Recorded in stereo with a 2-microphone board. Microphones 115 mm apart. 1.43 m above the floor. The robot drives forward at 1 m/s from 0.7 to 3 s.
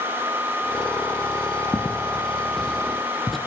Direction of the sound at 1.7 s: 15° left (ahead or behind).